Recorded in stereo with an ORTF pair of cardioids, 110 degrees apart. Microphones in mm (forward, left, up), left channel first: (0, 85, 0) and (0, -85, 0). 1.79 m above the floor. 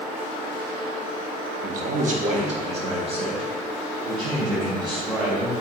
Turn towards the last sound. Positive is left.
turn(degrees=-25)